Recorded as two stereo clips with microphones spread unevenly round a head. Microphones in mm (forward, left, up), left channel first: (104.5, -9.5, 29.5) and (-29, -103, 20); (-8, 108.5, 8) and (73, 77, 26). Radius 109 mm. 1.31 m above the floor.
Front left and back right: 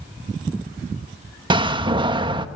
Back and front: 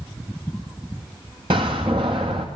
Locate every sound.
1.5 s a door slam: 85° right, 1.3 m